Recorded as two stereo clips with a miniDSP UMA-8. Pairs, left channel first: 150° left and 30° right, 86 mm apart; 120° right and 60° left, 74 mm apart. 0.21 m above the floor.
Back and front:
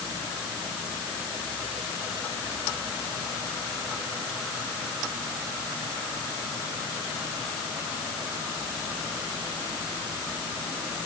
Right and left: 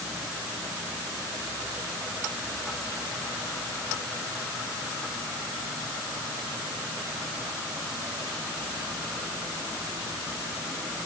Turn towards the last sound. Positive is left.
No sound to turn to.